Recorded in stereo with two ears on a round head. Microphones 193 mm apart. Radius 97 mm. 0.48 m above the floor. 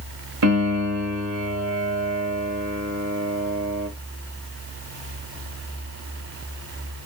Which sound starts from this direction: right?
A piano, at 0.4 s.